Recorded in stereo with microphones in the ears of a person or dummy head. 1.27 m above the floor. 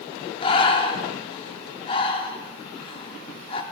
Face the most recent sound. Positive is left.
turn(degrees=30)  # may be behind; listen again after turning